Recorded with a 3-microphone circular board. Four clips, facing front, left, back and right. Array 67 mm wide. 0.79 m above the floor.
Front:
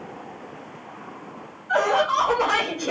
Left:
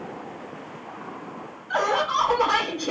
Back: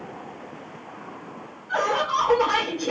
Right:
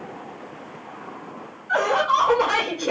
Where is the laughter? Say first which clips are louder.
Right 3 dB, front 3 dB; 75° right, 3 m.